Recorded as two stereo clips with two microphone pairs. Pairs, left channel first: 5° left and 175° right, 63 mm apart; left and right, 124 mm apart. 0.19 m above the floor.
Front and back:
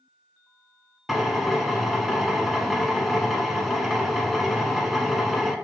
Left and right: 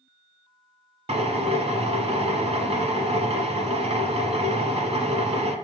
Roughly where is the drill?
Right.